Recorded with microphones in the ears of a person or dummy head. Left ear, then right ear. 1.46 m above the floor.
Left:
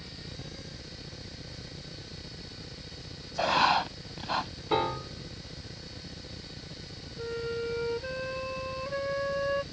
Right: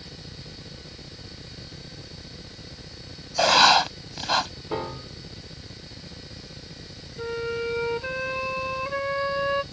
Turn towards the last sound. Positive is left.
turn(degrees=-40)  # may be behind; listen again after turning